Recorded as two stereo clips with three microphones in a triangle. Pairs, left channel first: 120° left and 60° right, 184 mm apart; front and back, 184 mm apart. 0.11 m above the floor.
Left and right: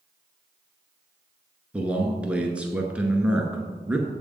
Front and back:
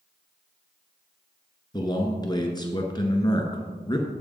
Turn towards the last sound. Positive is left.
turn(degrees=15)